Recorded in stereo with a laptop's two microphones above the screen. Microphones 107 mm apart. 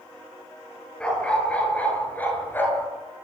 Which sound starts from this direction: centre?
A dog barking, at 1.0 s.